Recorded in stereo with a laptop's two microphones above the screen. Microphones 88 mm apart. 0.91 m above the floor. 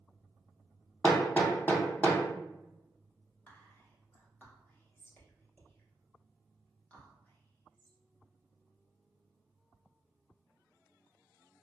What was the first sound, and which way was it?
Hammering, 20° left (ahead or behind).